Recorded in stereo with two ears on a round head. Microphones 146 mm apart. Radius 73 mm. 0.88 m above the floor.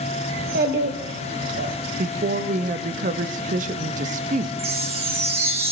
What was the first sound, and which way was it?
A child speaking, 55° right (ahead or behind).